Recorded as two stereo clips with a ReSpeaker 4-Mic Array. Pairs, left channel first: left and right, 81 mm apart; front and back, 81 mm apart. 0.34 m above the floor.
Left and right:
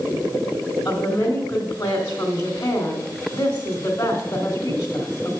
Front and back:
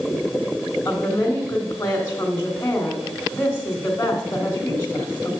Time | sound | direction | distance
0.8 | a woman speaking | 60° left | 2.5 m